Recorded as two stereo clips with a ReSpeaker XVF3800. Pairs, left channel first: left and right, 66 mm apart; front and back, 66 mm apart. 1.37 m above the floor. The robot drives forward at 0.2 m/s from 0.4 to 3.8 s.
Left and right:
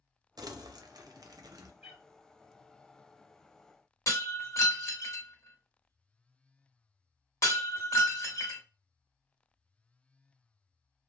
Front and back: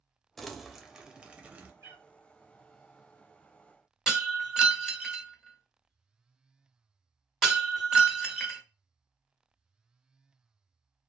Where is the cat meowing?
165° right, 1.4 m.